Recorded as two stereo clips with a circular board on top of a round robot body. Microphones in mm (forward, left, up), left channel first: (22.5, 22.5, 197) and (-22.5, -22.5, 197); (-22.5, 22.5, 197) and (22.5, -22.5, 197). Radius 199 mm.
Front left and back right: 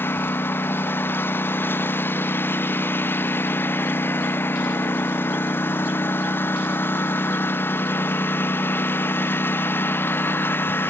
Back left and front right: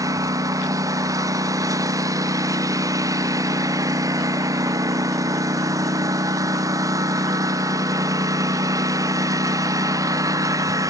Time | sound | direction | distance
0.0 | a lawn mower | 15° right | ?